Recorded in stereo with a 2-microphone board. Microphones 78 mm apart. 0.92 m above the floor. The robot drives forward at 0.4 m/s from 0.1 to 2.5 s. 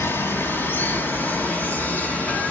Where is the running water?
30° left (ahead or behind), 1.9 m; by 2.5 s 20° left (ahead or behind), 2.5 m.